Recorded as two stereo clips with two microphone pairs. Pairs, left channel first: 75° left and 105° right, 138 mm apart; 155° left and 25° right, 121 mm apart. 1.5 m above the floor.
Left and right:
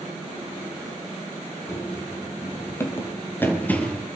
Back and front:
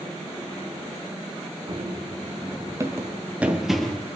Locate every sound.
1.7 s running footsteps: 10° left, 2.5 m; by 4.0 s 115° left, 1.5 m